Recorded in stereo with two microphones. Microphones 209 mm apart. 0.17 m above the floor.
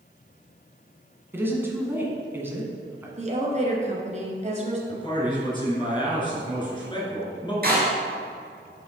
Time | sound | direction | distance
1.3 | a woman speaking | 10° right (ahead or behind) | 1.7 m
3.2 | a woman speaking | 35° right (ahead or behind) | 1.8 m
4.9 | a man speaking | 25° left (ahead or behind) | 2.5 m
7.6 | a door slam | 45° right (ahead or behind) | 1.8 m